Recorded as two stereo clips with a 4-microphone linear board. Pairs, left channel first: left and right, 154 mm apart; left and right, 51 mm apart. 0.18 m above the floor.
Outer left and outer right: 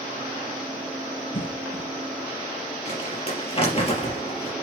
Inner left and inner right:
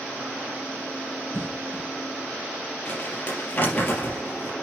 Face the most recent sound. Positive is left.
turn(degrees=40)  # may be behind; listen again after turning